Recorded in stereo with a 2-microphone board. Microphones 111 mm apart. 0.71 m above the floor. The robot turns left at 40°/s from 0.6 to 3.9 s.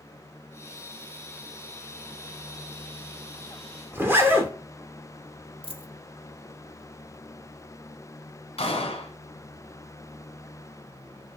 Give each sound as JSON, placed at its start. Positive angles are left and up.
{"t": 3.9, "sound": "a zipper", "side_deg": -20, "distance_m": 0.7}
{"t": 5.6, "sound": "a dropped coin", "side_deg": 55, "distance_m": 0.5}
{"t": 8.6, "sound": "a gunshot", "side_deg": 60, "distance_m": 1.0}